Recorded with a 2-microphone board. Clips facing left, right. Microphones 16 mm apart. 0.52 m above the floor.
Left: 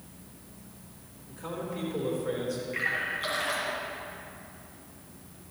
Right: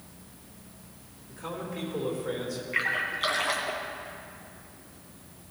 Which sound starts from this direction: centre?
A man speaking, at 1.3 s.